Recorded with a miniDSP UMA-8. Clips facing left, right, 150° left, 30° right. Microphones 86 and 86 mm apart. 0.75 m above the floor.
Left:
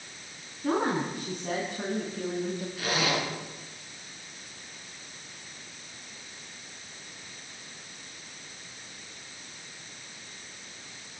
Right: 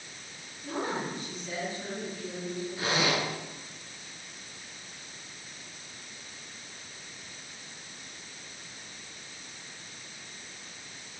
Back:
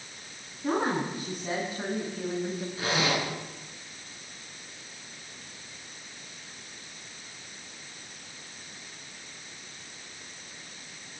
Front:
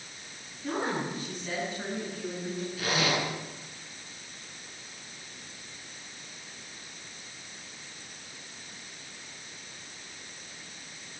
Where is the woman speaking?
110° left, 8 m; by 2.7 s 105° left, 5 m.